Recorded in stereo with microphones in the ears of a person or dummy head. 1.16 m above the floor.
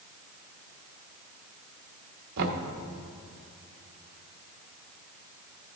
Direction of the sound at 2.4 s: 70° right (ahead or behind).